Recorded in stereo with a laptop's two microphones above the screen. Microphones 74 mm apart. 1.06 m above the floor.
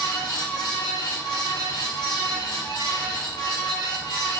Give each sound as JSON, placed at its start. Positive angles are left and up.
{"t": 0.0, "sound": "a fan", "side_deg": 65, "distance_m": 0.8}